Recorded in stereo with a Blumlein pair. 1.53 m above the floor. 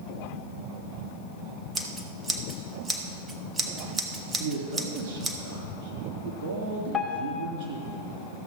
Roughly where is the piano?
Ahead.